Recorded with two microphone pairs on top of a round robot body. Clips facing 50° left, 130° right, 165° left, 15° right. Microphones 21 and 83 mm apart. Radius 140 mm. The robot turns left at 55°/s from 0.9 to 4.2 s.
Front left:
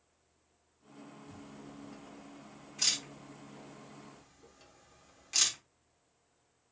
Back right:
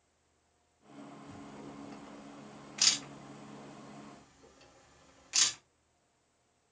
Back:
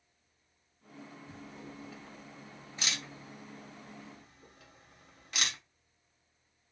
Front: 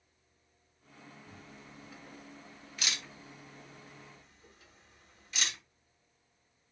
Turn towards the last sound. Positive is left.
turn(degrees=145)